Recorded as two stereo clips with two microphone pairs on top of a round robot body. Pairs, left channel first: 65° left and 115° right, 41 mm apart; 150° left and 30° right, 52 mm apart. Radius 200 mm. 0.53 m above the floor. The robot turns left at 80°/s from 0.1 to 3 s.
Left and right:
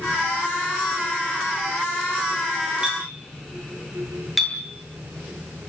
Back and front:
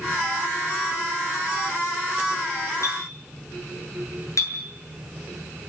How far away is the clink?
About 8 m.